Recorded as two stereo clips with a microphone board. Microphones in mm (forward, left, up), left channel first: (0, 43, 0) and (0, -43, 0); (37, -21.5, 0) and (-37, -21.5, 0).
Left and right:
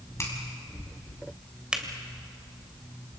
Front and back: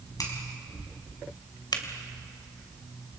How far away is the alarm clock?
I don't hear an alarm clock.